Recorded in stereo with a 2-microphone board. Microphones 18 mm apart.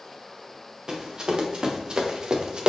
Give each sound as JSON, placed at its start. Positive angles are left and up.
{"t": 0.9, "sound": "running footsteps", "side_deg": -40, "distance_m": 2.5}